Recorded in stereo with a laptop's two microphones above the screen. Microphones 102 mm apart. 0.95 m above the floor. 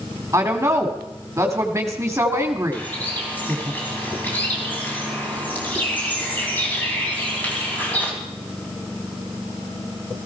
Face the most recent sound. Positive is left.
turn(degrees=15)  # may be behind; listen again after turning